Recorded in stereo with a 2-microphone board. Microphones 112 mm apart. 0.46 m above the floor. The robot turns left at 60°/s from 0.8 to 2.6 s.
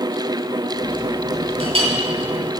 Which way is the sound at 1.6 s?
65° right (ahead or behind).